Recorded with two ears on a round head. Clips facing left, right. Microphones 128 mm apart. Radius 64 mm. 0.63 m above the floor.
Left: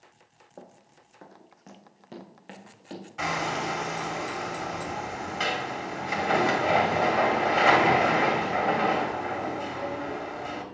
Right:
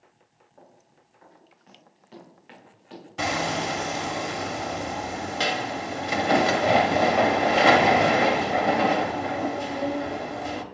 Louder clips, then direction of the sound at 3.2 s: Right 3 dB; 40° right (ahead or behind).